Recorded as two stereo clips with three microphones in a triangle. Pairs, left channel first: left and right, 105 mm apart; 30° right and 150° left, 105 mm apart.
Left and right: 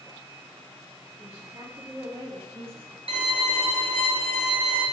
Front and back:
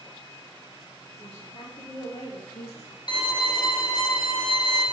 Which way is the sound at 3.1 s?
70° right.